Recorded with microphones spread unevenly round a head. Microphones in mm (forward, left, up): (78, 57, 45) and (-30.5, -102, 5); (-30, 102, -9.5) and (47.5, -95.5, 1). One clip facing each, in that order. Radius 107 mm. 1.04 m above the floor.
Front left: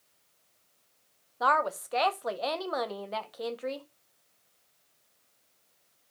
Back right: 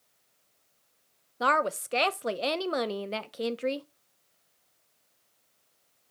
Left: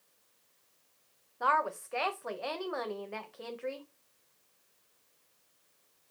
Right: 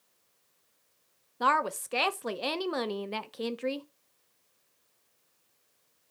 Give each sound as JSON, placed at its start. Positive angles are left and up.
{"t": 1.4, "sound": "a woman speaking", "azimuth_deg": -95, "distance_m": 0.7}